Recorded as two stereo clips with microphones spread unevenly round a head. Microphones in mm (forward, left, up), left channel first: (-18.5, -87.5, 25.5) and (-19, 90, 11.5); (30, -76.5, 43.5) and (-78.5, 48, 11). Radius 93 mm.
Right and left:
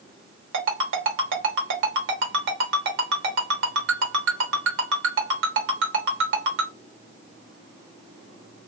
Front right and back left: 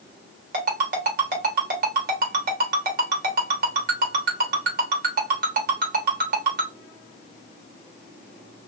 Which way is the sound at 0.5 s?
95° left.